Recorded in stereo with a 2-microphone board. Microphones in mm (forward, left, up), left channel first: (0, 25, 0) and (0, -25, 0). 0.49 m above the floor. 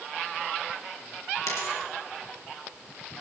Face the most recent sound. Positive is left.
turn(degrees=75)  # may be behind; listen again after turning